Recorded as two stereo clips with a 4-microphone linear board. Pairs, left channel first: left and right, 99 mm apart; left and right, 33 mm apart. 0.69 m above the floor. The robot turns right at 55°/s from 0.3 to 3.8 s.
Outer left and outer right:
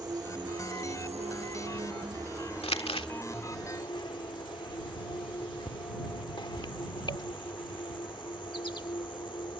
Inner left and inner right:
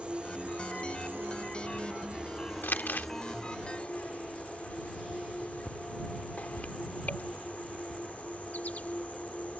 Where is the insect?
140° right; by 9.6 s 50° left.